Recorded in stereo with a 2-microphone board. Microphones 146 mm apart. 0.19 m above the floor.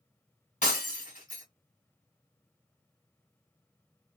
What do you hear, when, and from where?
0.6 s breaking glass: 55° left (ahead or behind), 1.6 m